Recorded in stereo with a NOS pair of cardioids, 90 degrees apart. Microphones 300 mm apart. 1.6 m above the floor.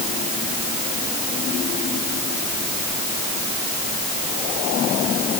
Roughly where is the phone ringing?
No phone ringing in this recording.